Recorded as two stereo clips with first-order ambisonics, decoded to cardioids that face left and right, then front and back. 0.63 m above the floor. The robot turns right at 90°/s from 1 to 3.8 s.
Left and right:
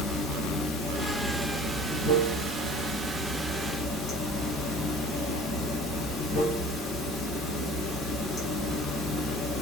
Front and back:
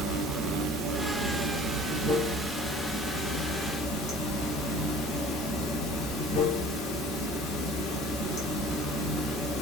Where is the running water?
140° left, 1.4 m; by 9.6 s 30° left, 1.4 m.